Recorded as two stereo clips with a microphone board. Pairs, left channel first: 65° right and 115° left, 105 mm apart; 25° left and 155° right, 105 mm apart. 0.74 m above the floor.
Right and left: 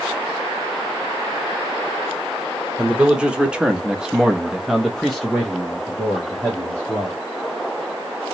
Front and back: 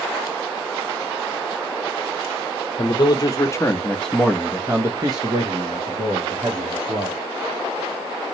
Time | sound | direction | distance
2.8 | a man speaking | 35° left | 1.1 m